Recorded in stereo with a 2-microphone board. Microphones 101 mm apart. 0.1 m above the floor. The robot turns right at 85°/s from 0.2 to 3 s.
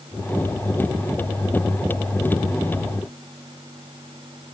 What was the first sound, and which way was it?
Only background noise.